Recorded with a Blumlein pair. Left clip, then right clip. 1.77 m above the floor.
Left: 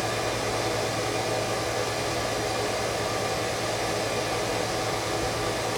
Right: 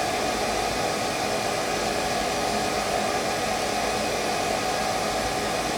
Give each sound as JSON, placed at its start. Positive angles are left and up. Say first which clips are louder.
{"t": 0.0, "sound": "a fan", "louder": "right 3 dB", "azimuth_deg": -20, "distance_m": 0.8}